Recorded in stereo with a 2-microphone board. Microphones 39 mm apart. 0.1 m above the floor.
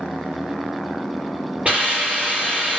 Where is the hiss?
35° right (ahead or behind), 2.5 m.